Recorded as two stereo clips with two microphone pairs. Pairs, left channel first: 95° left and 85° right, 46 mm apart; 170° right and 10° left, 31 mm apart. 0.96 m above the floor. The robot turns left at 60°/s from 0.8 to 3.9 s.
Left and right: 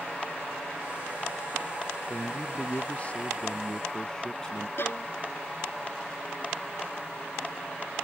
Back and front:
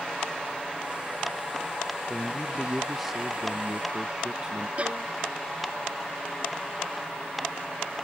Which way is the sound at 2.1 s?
135° left.